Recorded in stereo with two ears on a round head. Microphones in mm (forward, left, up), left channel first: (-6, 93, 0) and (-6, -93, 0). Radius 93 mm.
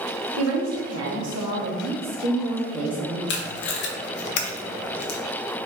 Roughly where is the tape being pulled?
Left.